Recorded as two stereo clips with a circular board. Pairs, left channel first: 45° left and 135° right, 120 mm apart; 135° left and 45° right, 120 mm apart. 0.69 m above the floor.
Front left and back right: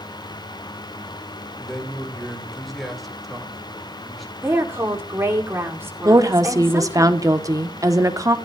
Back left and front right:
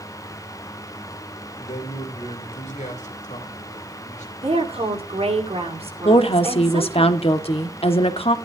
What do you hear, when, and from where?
1.6 s a man speaking: 135° left, 2.5 m
4.4 s a woman speaking: 70° right, 2.5 m
6.0 s a woman speaking: 165° left, 1.1 m